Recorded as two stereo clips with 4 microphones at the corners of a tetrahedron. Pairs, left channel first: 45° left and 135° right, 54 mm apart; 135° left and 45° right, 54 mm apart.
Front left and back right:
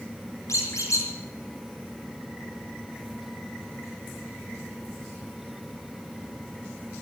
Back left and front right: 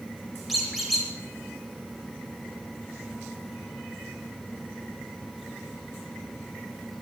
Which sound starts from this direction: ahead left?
A squeak, at 0.5 s.